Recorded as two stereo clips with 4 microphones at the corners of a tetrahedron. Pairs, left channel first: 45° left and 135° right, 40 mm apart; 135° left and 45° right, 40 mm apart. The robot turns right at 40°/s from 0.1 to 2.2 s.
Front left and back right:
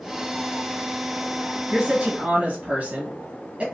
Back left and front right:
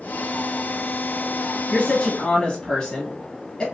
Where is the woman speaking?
170° left, 1.3 m; by 3.6 s 170° right, 1.3 m.